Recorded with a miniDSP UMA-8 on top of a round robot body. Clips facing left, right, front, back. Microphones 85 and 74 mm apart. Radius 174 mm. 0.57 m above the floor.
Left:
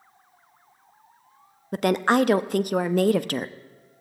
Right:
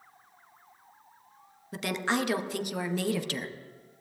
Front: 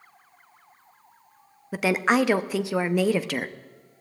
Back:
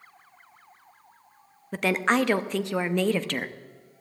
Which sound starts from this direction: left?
A woman speaking, at 1.7 s.